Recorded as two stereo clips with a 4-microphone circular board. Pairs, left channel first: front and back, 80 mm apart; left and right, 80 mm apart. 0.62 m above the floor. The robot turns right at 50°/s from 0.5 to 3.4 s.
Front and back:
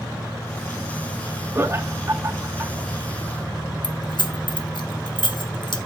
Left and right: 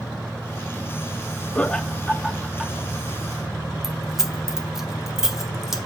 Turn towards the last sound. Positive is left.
turn(degrees=-5)